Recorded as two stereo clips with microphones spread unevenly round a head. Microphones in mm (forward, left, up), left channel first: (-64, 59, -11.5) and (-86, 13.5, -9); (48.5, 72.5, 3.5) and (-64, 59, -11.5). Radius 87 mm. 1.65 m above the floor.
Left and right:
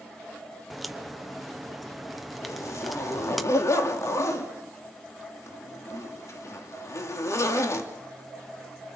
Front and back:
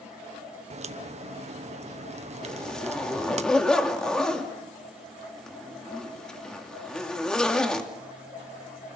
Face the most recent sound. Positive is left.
turn(degrees=90)